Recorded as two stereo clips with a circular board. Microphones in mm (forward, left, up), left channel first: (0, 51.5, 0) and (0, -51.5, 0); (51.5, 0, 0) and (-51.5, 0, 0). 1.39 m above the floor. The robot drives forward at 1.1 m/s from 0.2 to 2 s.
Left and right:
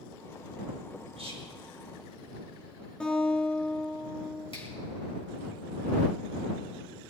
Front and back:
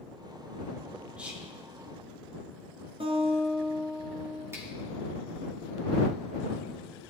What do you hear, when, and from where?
1.2 s whispering: 100° right, 4 m; by 1.5 s 105° right, 4 m
3.0 s a guitar: 170° left, 3 m
4.5 s a finger snap: 115° left, 3.5 m